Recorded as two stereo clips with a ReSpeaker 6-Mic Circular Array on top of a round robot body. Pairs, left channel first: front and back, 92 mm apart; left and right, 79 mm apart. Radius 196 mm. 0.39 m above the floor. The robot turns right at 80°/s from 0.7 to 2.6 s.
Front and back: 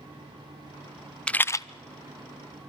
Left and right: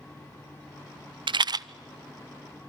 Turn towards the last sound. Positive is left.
turn(degrees=25)